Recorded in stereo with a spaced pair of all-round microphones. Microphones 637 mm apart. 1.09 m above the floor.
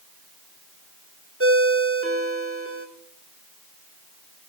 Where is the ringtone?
20° right (ahead or behind), 2.0 m.